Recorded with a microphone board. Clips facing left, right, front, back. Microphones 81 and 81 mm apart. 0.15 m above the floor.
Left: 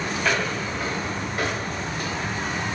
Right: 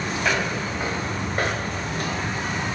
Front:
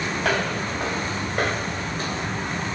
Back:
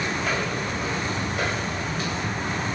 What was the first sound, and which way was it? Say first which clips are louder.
Footsteps: even, front 2 dB; 10° right.